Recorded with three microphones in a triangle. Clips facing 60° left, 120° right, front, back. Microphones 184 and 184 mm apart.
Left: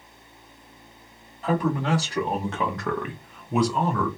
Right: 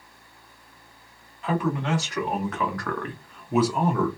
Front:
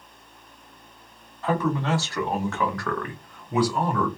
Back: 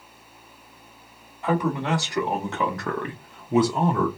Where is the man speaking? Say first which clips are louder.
Left 2 dB, back 1 dB; 105° left, 1.4 m; by 4.1 s 145° right, 0.6 m.